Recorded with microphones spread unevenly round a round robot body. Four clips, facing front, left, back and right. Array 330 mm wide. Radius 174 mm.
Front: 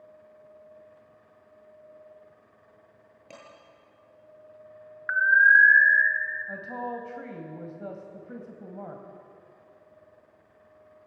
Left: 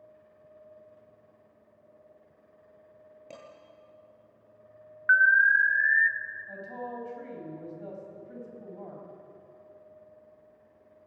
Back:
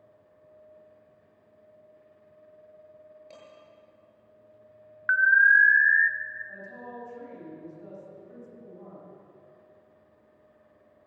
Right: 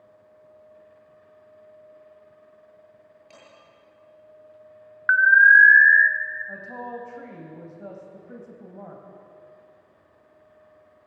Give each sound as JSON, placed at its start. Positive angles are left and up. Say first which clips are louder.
{"t": 3.3, "sound": "dishes clattering", "louder": "left 5 dB, front 5 dB", "azimuth_deg": 45, "distance_m": 8.5}
{"t": 5.1, "sound": "an alarm", "louder": "right 6 dB, front 1 dB", "azimuth_deg": -150, "distance_m": 0.6}
{"t": 6.5, "sound": "a woman speaking", "louder": "right 3 dB, front 8 dB", "azimuth_deg": -25, "distance_m": 3.5}